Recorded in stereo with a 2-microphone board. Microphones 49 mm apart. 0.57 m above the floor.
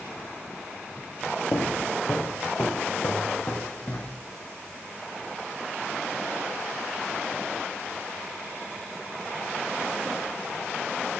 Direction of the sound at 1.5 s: 60° left (ahead or behind).